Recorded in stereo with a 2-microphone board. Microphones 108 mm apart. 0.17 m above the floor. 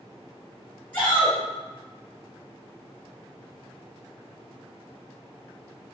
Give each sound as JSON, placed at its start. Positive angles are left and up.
{"t": 0.9, "sound": "a shout", "side_deg": 15, "distance_m": 1.8}